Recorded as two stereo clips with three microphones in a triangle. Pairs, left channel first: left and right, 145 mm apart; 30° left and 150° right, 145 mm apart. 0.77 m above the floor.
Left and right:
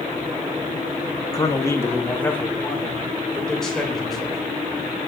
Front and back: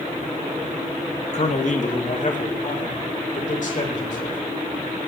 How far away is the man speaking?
About 1.5 m.